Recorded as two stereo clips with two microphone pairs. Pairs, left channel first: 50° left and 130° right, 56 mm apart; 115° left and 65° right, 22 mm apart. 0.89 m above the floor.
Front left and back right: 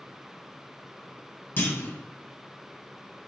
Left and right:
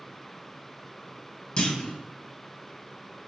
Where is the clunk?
90° left, 1.1 m.